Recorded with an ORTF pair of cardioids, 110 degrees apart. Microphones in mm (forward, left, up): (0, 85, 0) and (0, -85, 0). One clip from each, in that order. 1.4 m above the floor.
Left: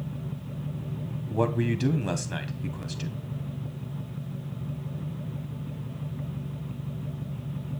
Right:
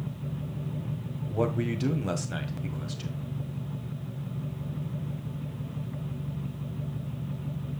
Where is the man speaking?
10° left, 1.3 m.